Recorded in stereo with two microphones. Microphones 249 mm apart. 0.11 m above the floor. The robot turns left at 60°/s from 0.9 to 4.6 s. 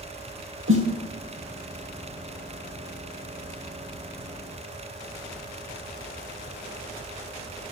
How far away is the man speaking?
No man speaking in this recording.